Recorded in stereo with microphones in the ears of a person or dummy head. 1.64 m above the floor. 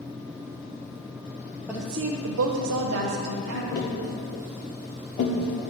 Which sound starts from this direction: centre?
A woman speaking, at 1.7 s.